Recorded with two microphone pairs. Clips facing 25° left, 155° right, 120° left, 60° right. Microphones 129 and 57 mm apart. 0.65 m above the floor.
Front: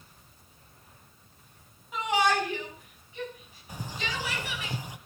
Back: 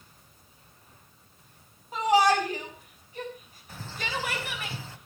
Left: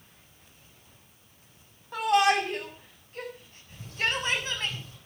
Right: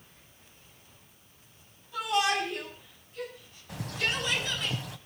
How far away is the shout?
About 6 m.